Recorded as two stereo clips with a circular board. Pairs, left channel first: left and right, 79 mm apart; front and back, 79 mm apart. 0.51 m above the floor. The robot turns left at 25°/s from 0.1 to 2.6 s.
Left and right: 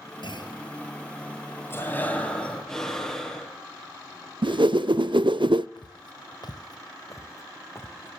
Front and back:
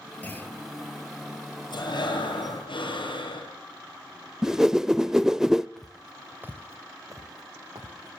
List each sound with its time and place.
0.2 s a clunk: 70° left, 9 m; by 0.6 s 60° left, 9 m
1.7 s breathing: 30° left, 8.5 m; by 3.5 s 5° left, 8.5 m
4.4 s a whoosh: 95° right, 0.5 m
5.8 s footsteps: 85° left, 1.3 m; by 8.2 s 150° left, 2.5 m